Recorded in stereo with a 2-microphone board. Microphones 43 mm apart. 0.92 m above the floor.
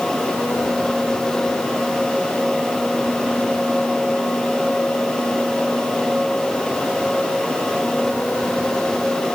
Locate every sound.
Only background noise.